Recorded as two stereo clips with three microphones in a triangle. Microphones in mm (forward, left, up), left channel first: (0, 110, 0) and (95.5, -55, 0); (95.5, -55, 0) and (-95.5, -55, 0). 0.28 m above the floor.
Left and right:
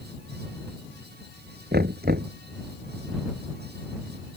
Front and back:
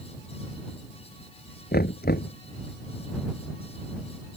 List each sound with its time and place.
1.7 s knocking: 30° right